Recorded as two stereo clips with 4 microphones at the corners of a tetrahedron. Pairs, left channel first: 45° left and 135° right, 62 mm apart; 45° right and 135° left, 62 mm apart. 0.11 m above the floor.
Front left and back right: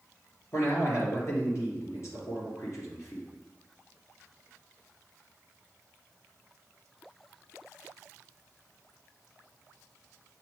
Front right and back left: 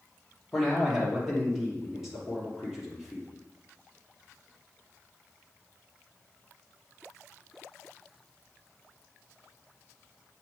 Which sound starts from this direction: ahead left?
A man speaking, at 0.5 s.